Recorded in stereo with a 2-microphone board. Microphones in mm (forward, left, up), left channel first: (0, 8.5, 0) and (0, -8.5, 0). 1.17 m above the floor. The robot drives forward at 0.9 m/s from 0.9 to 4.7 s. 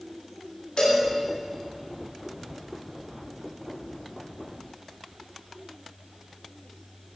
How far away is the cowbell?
About 3.5 m.